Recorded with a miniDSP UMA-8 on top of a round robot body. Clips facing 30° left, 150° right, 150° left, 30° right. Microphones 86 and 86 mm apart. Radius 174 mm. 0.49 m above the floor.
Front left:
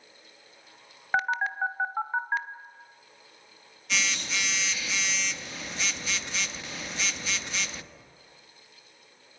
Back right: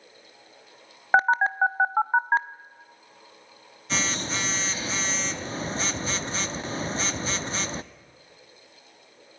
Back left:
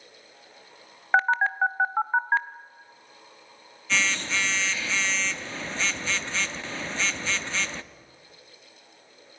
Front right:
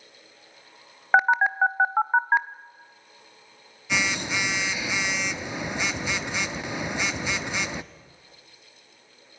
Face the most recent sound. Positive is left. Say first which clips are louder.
# back right 7 dB, front right 3 dB
turn(degrees=-105)